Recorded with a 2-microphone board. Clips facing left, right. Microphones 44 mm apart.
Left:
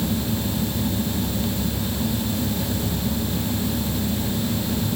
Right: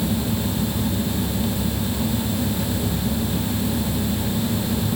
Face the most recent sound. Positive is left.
No sound to turn to.